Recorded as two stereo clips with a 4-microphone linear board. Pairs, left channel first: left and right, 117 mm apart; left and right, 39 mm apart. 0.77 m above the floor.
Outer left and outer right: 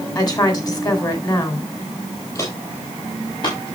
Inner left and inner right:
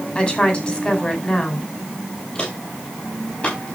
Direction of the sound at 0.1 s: 35° left (ahead or behind).